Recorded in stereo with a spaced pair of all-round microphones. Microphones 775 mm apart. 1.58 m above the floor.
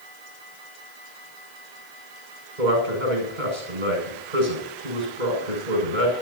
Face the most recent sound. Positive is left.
turn(degrees=-85)